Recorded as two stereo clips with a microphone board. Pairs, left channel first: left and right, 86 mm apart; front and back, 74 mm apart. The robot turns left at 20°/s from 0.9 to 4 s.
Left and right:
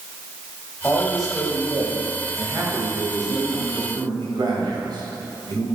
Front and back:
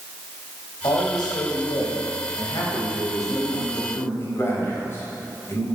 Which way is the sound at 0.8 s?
5° left.